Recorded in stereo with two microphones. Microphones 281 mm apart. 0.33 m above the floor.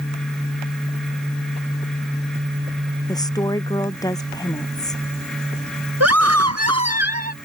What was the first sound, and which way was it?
A woman speaking, 15° left (ahead or behind).